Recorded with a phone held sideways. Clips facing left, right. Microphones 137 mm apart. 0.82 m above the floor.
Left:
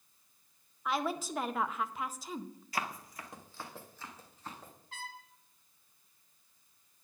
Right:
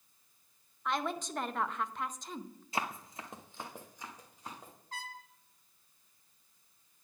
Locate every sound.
0.8 s a woman speaking: 5° left (ahead or behind), 0.6 m
2.7 s running footsteps: 25° right (ahead or behind), 0.8 m; by 4.7 s 15° right (ahead or behind), 3 m
4.9 s a trumpet: 40° right (ahead or behind), 1.6 m